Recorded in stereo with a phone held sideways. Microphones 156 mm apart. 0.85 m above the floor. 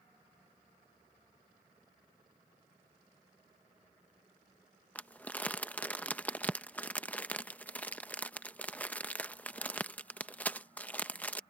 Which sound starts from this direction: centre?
Crumpling, at 5.0 s.